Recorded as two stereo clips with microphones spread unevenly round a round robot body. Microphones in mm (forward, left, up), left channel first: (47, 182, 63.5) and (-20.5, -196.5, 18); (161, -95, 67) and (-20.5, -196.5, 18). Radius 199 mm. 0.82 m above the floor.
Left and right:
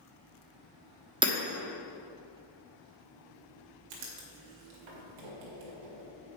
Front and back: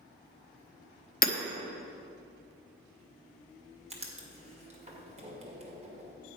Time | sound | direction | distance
1.2 | hammering | 25° right | 1.0 m
3.9 | writing | 90° right | 2 m